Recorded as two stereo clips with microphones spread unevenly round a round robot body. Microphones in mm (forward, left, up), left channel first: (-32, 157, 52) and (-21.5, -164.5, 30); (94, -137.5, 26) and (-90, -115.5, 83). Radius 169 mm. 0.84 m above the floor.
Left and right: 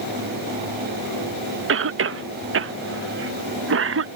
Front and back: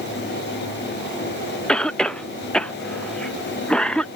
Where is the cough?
70° right.